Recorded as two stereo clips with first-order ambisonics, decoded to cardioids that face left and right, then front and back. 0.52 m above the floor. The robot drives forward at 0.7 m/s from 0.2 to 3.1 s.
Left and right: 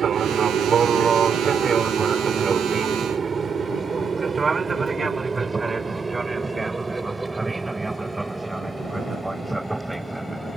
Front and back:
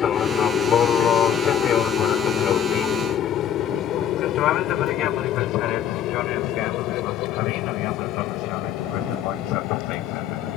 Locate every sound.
0.0 s an aircraft: 40° right; by 10.6 s 5° right